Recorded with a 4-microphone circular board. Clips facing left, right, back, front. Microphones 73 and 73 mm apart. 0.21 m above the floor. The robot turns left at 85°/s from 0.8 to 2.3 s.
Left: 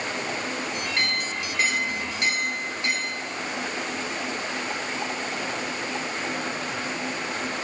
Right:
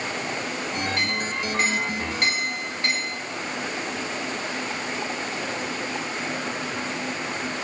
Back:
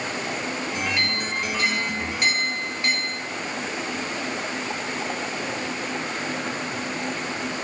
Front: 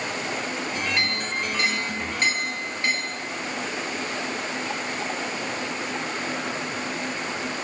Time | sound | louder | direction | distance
1.0 | a clink | right 1 dB, even | 55° left | 2 m